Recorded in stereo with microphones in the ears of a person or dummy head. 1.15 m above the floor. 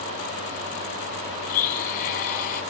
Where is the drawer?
I don't hear a drawer.